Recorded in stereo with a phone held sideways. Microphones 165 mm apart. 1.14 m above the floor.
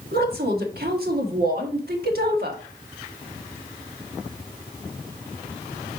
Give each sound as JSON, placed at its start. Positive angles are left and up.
{"t": 0.1, "sound": "a woman speaking", "side_deg": -70, "distance_m": 1.6}